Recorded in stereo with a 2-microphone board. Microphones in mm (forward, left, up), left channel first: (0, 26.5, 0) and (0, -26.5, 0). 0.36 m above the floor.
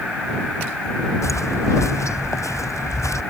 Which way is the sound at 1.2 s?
75° left (ahead or behind).